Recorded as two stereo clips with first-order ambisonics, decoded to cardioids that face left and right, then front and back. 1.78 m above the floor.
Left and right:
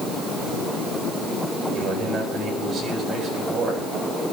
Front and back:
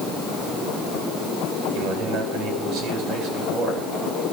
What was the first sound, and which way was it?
A man speaking, 150° right.